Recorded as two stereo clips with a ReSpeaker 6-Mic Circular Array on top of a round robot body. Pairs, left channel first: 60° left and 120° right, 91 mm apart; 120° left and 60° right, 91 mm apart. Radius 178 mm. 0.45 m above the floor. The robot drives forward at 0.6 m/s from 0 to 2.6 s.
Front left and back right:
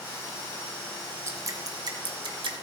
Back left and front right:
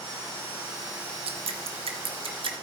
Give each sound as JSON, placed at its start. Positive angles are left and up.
{"t": 1.3, "sound": "dripping", "azimuth_deg": -65, "distance_m": 1.6}